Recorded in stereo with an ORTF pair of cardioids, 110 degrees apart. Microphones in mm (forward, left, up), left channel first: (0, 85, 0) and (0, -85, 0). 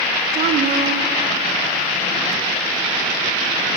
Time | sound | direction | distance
0.3 | a woman speaking | 65° right | 3 m